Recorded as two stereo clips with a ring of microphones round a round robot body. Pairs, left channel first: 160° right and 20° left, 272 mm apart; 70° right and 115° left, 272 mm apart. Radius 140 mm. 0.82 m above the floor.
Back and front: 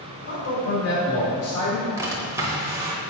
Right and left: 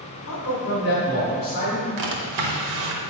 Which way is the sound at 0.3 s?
115° right.